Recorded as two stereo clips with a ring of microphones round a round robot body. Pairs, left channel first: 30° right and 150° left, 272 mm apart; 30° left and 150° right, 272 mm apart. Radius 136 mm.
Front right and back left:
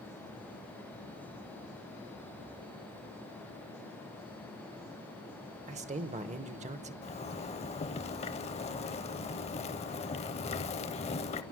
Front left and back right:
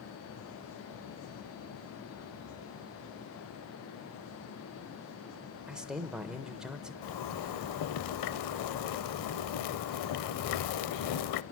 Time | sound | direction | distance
5.7 | a man speaking | 125° left | 0.8 m
7.0 | a zipper | 40° left | 0.5 m